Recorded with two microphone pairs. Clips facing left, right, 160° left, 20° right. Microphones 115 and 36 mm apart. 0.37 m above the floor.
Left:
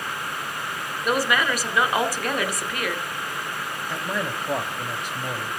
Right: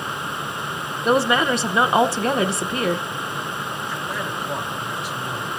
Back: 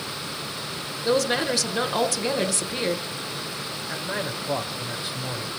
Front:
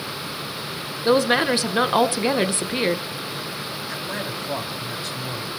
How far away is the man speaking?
About 2.5 m.